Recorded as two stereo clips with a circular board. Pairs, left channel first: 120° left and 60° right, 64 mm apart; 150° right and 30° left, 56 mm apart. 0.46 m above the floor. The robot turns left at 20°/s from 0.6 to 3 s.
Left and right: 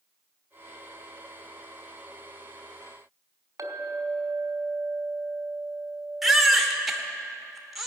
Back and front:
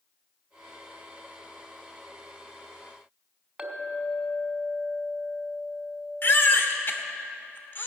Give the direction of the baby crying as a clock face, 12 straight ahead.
5 o'clock.